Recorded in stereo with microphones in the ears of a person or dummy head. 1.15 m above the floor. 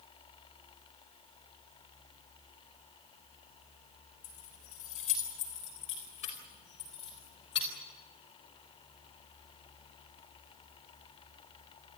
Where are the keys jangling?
40° left (ahead or behind), 3.5 m; by 7.7 s 25° left (ahead or behind), 5 m.